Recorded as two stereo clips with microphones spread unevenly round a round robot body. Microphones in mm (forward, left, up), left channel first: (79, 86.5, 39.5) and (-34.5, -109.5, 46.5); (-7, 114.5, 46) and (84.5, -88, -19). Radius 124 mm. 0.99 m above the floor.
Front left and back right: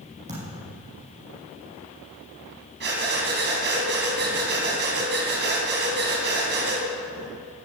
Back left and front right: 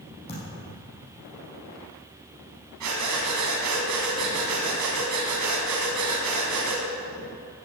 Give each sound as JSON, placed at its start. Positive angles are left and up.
{"t": 0.3, "sound": "a thud", "azimuth_deg": 180, "distance_m": 5.5}
{"t": 2.8, "sound": "breathing", "azimuth_deg": -80, "distance_m": 3.0}